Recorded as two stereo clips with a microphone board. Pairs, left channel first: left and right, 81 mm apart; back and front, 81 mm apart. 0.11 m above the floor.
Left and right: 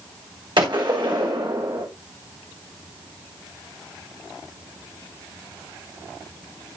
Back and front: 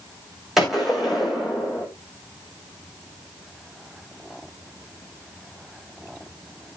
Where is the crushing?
No crushing in this recording.